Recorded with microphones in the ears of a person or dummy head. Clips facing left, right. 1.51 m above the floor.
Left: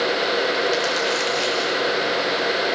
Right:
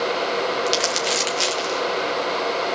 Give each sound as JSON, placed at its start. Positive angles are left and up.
{"t": 0.7, "sound": "crumpling", "side_deg": -50, "distance_m": 1.3}